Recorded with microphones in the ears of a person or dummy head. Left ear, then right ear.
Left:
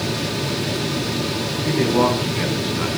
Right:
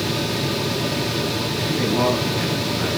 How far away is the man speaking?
About 8.5 m.